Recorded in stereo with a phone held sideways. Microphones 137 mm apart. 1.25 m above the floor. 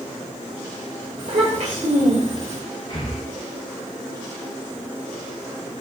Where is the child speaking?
60° right (ahead or behind), 2.5 m; by 2.6 s 50° right (ahead or behind), 1.6 m.